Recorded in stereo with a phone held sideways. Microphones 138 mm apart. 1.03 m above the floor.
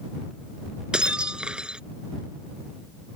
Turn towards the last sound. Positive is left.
turn(degrees=-5)  # may be behind; listen again after turning